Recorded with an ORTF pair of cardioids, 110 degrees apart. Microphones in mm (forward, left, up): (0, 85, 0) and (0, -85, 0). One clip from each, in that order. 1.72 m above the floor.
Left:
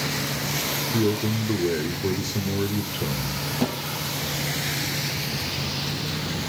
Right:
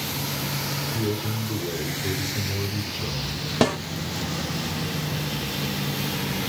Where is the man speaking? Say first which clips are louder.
Left 4 dB; 70° left, 1.1 m.